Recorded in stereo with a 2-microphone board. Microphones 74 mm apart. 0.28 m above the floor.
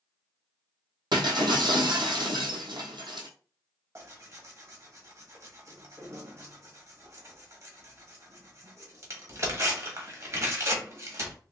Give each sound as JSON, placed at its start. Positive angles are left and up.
{"t": 1.1, "sound": "breaking glass", "side_deg": -80, "distance_m": 1.0}
{"t": 4.0, "sound": "tearing paper", "side_deg": -40, "distance_m": 1.1}